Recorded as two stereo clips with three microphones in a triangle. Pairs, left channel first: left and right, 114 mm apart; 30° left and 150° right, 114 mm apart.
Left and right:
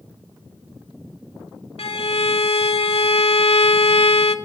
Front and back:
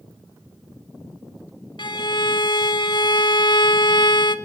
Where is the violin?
70° left, 0.5 m.